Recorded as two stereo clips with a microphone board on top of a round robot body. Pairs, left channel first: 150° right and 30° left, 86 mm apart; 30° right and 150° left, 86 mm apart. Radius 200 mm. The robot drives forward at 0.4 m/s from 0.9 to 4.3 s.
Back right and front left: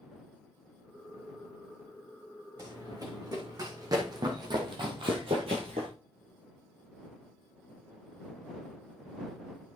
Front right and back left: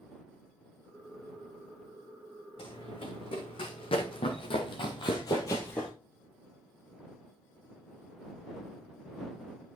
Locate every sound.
2.6 s running footsteps: 15° right, 3.5 m; by 5.9 s 55° left, 0.9 m